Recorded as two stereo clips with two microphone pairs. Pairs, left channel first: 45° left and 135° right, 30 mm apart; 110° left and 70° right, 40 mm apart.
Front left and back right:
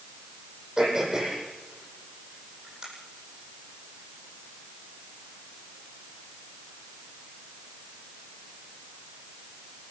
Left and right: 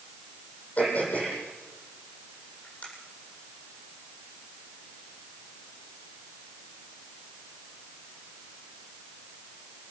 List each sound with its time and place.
0.8 s throat clearing: 155° left, 9.5 m